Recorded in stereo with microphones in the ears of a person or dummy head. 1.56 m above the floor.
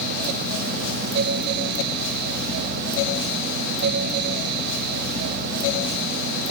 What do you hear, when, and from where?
Only background noise.